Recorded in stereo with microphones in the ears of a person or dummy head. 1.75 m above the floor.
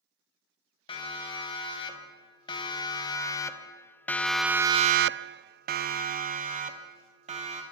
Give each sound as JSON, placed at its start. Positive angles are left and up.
{"t": 0.9, "sound": "a siren", "side_deg": 25, "distance_m": 3.5}